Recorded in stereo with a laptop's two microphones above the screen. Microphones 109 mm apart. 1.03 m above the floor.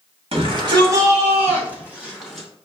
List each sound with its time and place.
0.3 s a shout: 55° right (ahead or behind), 1.7 m; by 2.5 s 5° right (ahead or behind), 3 m